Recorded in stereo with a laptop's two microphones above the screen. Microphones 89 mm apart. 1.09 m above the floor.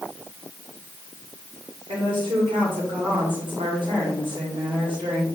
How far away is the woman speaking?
About 2.5 m.